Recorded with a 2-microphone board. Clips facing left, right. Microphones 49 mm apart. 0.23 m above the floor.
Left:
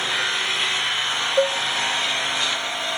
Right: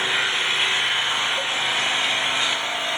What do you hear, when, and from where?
0.0 s an engine running: 25° right (ahead or behind), 4.5 m
1.4 s a cowbell: 80° left, 0.6 m